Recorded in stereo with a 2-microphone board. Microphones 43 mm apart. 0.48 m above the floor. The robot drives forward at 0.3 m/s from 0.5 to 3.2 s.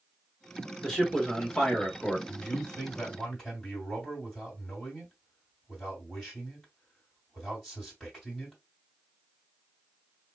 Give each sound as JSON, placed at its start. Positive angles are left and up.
{"t": 0.8, "sound": "a man speaking", "side_deg": 10, "distance_m": 1.4}
{"t": 2.3, "sound": "a man speaking", "side_deg": 15, "distance_m": 2.0}